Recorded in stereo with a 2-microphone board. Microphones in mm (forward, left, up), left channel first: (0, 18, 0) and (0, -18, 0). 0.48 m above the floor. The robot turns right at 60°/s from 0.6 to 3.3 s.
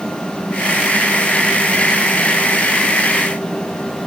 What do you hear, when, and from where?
Only background noise.